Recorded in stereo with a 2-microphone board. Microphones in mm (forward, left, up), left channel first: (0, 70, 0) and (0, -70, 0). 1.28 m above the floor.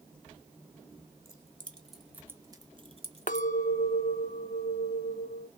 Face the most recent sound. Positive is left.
turn(degrees=65)  # may be behind; listen again after turning